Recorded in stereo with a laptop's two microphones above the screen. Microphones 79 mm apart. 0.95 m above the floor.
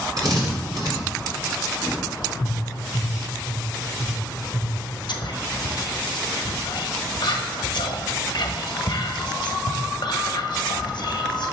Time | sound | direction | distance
0.2 | a drill | 60° right (ahead or behind) | 3 m
2.4 | tapping | 35° right (ahead or behind) | 3 m
5.1 | whispering | 70° left (ahead or behind) | 1.2 m